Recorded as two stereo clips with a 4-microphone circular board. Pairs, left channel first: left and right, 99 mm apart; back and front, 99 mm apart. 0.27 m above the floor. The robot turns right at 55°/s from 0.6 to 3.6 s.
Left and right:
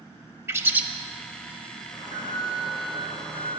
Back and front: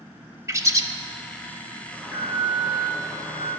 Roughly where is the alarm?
Left.